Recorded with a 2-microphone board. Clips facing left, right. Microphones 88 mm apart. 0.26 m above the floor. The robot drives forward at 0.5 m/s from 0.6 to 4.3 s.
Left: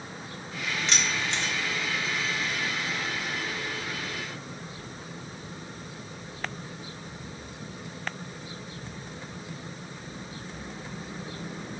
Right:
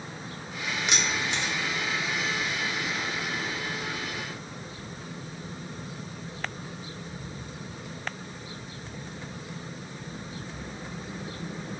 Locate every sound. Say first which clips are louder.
0.9 s keys jangling: right 1 dB; 15° right (ahead or behind), 0.7 m; by 1.5 s 10° right (ahead or behind), 0.9 m